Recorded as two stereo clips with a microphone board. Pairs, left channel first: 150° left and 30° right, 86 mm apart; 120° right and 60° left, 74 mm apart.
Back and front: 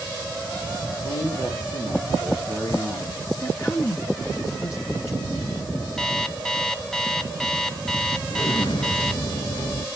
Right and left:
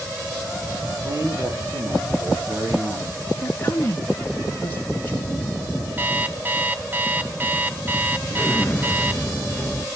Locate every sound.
1.0 s a man speaking: 110° left, 6 m
3.4 s a woman speaking: 175° right, 1.4 m
6.0 s an alarm clock: 75° left, 0.8 m
8.3 s an explosion: 170° left, 0.9 m